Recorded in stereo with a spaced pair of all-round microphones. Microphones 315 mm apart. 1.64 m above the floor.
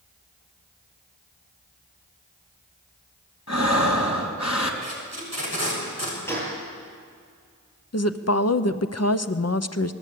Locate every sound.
3.5 s breathing: 60° left (ahead or behind), 3 m
4.8 s tape being pulled: 55° left (ahead or behind), 7 m
6.3 s a gunshot: 5° left (ahead or behind), 9.5 m
7.9 s a woman speaking: 55° left (ahead or behind), 0.8 m